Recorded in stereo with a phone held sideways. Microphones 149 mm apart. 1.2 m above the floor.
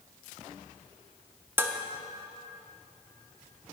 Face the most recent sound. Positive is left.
turn(degrees=-15)  # may be behind; listen again after turning